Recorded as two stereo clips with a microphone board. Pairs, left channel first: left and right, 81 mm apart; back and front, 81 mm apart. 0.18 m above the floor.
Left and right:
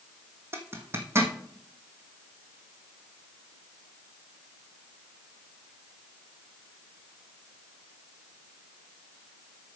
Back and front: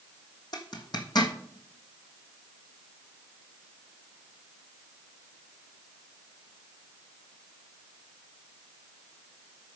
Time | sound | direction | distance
0.5 | a zipper | 150° right | 1.5 m